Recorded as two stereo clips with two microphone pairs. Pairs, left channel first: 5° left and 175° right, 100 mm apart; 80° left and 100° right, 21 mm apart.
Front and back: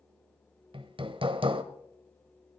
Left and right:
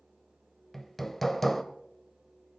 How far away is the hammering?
About 1.0 m.